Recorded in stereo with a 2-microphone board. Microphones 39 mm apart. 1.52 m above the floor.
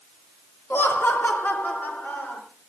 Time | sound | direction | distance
0.7 | laughter | 70° left (ahead or behind) | 2.5 m